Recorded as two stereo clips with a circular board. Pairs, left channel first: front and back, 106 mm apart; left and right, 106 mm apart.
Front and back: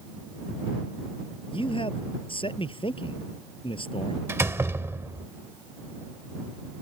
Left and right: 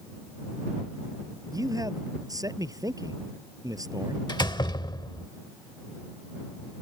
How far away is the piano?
No piano in this recording.